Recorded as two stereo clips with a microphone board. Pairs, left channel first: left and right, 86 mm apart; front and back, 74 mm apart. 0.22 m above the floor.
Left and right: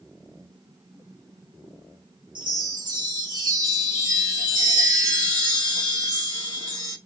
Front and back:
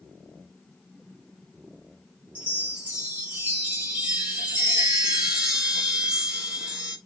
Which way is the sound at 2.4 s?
110° right.